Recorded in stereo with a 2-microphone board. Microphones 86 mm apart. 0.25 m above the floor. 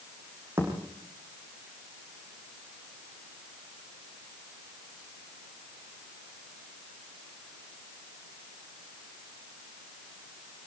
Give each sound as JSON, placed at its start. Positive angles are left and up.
{"t": 0.6, "sound": "a thud", "side_deg": -30, "distance_m": 7.0}